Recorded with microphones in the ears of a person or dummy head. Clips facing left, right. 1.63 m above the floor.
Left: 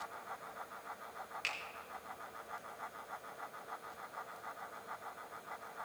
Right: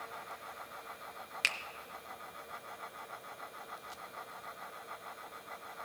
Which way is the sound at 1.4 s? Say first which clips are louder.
Right 2 dB; 70° right (ahead or behind).